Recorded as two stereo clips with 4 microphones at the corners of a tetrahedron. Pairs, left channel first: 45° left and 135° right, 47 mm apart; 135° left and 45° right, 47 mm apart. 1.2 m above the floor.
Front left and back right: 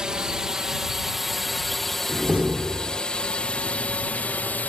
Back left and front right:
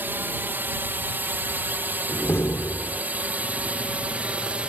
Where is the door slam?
165° left.